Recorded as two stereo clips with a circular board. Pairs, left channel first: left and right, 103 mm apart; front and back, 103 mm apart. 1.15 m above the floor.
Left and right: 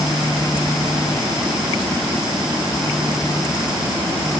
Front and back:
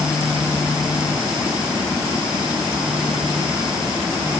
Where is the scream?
I don't hear a scream.